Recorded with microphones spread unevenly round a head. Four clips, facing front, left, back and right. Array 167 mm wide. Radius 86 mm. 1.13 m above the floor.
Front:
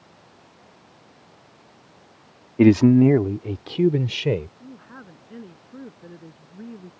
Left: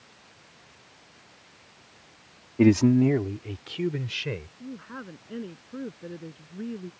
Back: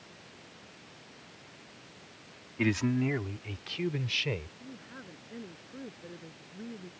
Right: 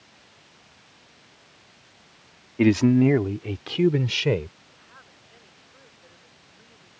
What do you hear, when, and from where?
2.6 s a man speaking: 5° left; by 4.5 s 35° right
4.6 s a woman speaking: 70° left